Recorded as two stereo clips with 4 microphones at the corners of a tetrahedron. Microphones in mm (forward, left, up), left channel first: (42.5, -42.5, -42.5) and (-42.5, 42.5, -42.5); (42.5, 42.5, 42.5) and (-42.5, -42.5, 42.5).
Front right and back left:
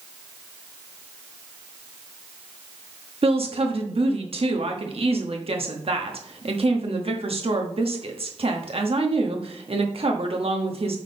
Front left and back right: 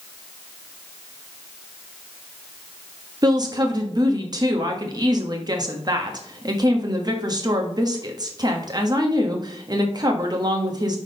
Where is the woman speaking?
170° left, 1.0 m.